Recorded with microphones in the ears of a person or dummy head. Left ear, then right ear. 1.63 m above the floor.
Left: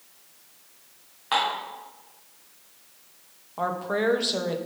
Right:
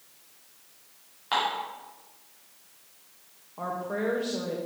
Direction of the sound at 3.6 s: 40° left (ahead or behind).